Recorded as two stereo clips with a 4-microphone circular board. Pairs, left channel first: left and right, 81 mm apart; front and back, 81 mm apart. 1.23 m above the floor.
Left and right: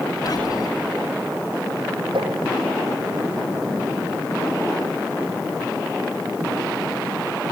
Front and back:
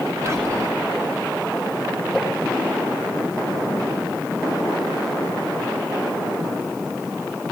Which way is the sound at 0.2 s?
125° left.